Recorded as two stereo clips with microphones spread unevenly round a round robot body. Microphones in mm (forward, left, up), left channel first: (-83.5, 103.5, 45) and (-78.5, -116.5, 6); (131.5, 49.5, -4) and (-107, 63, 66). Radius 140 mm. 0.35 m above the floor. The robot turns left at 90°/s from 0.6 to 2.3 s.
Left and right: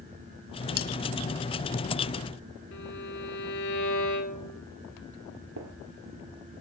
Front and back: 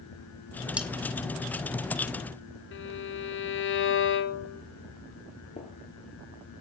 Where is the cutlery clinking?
80° left, 1.0 m; by 0.9 s 70° left, 1.0 m.